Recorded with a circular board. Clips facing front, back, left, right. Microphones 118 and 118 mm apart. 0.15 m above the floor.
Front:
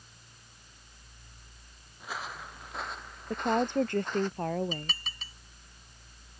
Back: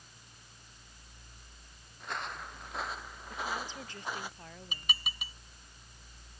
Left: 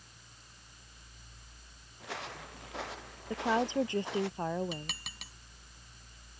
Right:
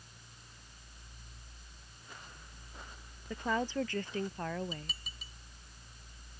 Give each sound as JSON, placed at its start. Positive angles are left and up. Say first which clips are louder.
{"t": 2.0, "sound": "footsteps", "louder": "even, left 12 dB", "azimuth_deg": 85}
{"t": 3.3, "sound": "a woman speaking", "louder": "front 12 dB, left 4 dB", "azimuth_deg": 20}
{"t": 4.7, "sound": "dishes clattering", "louder": "front 3 dB, left 3 dB", "azimuth_deg": 105}